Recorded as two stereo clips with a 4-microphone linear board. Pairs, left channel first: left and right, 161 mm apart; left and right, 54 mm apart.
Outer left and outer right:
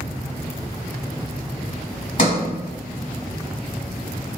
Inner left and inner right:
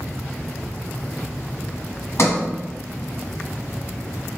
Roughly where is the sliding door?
Left.